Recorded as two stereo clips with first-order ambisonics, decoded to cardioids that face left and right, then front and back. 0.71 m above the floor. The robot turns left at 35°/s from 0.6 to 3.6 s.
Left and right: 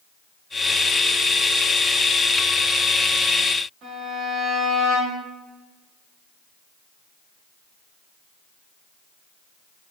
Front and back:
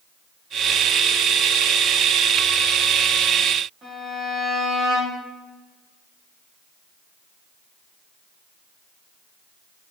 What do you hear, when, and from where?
3.8 s a violin: 130° right, 1.3 m